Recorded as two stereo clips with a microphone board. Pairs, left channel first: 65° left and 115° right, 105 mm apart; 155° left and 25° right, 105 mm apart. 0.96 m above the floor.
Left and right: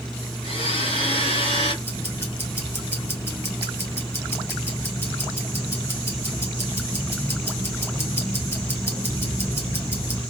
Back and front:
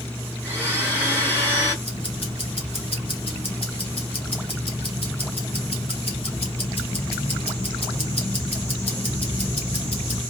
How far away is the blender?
About 2 m.